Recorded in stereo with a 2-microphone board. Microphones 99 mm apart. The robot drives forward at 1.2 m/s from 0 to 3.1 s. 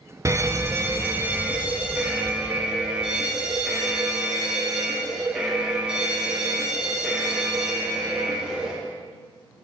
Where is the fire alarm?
30° right (ahead or behind), 1.1 m; by 8.7 s 10° right (ahead or behind), 4 m.